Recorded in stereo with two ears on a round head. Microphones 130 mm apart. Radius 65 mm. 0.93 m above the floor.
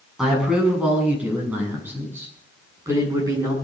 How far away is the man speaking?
About 7.5 m.